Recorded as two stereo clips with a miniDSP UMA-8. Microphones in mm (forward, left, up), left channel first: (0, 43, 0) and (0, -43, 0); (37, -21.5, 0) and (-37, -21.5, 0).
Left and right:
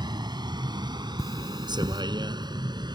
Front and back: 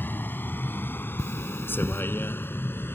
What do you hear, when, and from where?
0.0 s a vehicle: 60° right
1.2 s cutlery clinking: 40° left